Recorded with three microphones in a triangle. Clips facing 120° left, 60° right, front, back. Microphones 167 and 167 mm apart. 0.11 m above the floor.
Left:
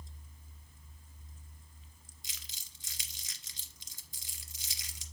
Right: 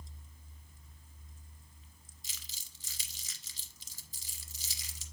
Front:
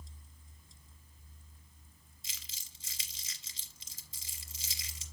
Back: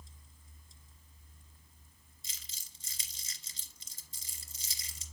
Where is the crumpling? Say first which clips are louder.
Even, front 2 dB; 150° right, 1.6 m.